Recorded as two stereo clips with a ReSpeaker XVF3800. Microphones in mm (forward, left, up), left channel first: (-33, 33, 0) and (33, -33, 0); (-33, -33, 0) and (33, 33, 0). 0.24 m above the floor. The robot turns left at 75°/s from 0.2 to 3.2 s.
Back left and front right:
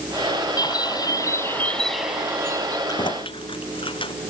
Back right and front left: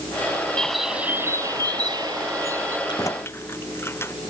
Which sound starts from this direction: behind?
Keys jangling, at 2.9 s.